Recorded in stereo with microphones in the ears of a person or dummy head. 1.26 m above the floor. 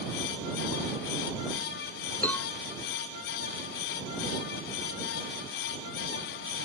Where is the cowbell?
10° left (ahead or behind).